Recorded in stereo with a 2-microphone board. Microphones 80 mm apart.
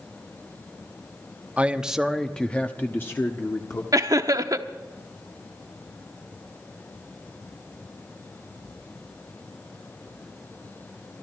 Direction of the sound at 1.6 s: 20° right (ahead or behind).